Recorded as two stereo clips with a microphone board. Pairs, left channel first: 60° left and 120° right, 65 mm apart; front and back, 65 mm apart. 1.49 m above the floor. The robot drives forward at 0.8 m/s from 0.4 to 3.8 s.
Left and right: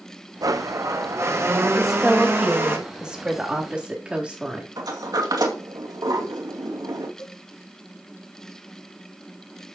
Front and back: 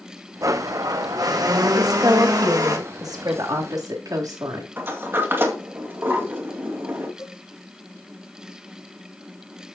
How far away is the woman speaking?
About 1.9 m.